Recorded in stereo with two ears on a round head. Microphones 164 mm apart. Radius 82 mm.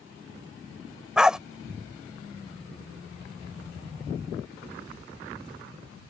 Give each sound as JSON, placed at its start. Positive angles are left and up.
{"t": 1.2, "sound": "a dog barking", "side_deg": -5}